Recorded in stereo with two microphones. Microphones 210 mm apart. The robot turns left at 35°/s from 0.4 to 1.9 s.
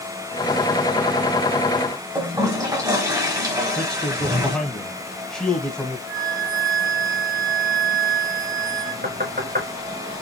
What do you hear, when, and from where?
2.1 s a toilet flushing: 15° right (ahead or behind), 1.4 m
3.8 s a man speaking: 5° left (ahead or behind), 1.3 m
6.1 s a flute: 25° right (ahead or behind), 1.4 m
9.0 s knocking: 45° right (ahead or behind), 2 m